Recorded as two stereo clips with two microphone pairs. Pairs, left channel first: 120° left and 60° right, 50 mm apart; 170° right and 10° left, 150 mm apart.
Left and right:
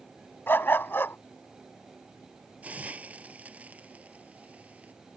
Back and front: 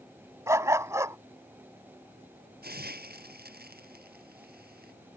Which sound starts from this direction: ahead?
A hiss, at 2.6 s.